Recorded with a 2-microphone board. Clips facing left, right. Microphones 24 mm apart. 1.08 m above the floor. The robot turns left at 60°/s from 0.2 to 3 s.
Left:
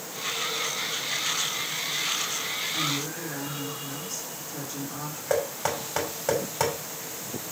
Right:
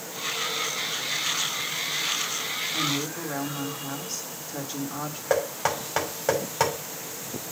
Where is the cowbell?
I don't hear a cowbell.